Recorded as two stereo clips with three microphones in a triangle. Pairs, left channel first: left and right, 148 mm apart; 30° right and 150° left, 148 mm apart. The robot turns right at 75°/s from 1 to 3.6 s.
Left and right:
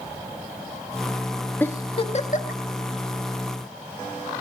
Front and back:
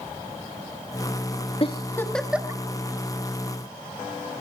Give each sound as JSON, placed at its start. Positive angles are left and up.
{"t": 1.6, "sound": "a giggle", "azimuth_deg": 10, "distance_m": 1.6}